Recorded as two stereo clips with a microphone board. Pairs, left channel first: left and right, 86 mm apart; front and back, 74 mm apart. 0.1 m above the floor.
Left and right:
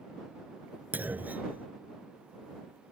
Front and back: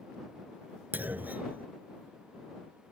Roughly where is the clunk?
Behind right.